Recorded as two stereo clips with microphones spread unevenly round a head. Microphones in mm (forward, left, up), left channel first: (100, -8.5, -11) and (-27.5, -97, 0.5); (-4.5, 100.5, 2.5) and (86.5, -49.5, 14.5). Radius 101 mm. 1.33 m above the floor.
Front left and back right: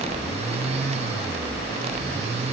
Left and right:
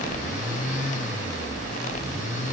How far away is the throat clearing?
I don't hear throat clearing.